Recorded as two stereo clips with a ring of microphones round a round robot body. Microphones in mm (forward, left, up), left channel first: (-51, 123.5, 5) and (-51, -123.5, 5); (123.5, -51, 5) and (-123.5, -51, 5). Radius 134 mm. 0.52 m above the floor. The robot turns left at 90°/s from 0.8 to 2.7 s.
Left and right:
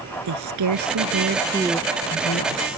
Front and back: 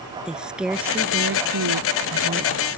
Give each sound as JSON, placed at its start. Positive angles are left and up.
{"t": 0.2, "sound": "a woman speaking", "azimuth_deg": -95}